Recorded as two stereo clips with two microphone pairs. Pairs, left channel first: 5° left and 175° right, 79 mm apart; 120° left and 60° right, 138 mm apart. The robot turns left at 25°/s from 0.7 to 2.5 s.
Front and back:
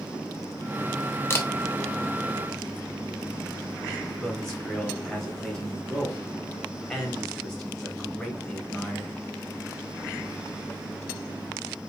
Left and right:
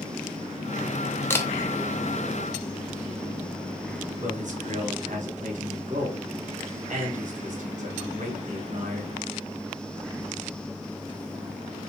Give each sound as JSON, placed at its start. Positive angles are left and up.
{"t": 1.3, "sound": "a camera shutter", "azimuth_deg": 55, "distance_m": 0.7}
{"t": 4.2, "sound": "a man speaking", "azimuth_deg": -80, "distance_m": 1.5}